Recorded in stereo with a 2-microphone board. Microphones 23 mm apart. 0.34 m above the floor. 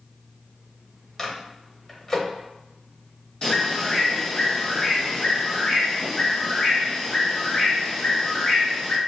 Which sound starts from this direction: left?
A bird, at 3.4 s.